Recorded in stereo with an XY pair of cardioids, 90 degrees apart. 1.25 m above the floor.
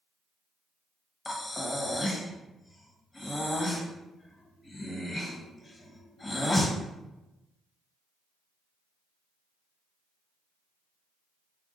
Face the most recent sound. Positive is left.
turn(degrees=25)